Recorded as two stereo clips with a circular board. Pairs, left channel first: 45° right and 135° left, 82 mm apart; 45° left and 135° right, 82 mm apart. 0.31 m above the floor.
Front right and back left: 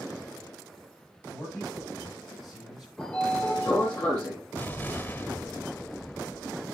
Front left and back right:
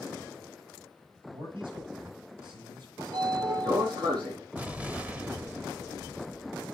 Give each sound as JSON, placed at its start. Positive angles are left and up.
{"t": 1.3, "sound": "a man speaking", "azimuth_deg": -135, "distance_m": 7.5}
{"t": 3.0, "sound": "a sliding door", "azimuth_deg": -115, "distance_m": 6.5}
{"t": 4.5, "sound": "an explosion", "azimuth_deg": -80, "distance_m": 1.0}